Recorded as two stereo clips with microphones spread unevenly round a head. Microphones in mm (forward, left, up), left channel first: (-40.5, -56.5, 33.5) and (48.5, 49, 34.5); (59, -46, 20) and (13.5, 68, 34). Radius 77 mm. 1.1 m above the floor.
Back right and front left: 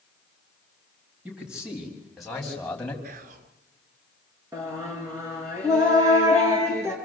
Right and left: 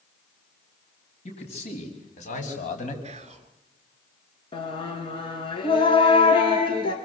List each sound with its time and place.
1.2 s a man speaking: 30° right, 7 m; by 2.9 s 45° right, 6.5 m
3.0 s whispering: 75° left, 2 m
4.5 s singing: 20° right, 5 m